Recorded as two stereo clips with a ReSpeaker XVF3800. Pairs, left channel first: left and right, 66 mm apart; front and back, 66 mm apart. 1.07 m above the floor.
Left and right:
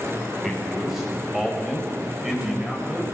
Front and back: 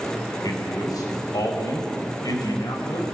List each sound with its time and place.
0.4 s a man speaking: straight ahead, 7 m; by 3.0 s 10° right, 6 m